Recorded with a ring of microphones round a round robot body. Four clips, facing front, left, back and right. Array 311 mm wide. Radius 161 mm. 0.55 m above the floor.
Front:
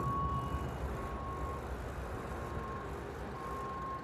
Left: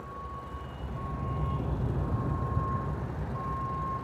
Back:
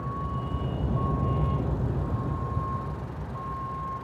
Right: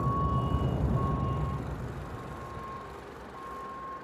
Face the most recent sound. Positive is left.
turn(degrees=125)